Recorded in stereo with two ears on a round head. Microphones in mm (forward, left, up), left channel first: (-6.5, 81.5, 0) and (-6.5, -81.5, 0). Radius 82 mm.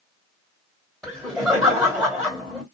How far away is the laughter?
About 2 m.